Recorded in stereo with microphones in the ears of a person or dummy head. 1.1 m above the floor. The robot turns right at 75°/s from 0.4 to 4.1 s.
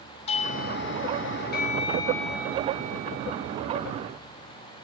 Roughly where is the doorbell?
Ahead left.